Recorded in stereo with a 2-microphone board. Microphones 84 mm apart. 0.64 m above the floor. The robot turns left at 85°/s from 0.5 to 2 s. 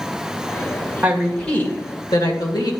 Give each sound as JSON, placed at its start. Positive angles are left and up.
{"t": 1.0, "sound": "a woman speaking", "azimuth_deg": -155, "distance_m": 1.9}